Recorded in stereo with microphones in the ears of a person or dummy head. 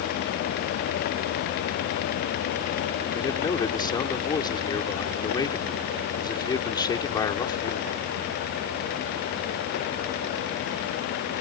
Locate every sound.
3.1 s a man speaking: 25° left (ahead or behind)